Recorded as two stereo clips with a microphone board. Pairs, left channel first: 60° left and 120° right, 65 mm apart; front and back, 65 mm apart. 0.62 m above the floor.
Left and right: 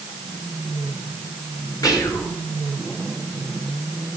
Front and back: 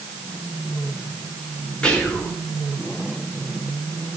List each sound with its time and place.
1.8 s whispering: 75° left, 7 m